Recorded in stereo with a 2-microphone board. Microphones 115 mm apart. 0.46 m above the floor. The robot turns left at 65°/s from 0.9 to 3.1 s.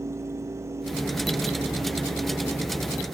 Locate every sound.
Only background noise.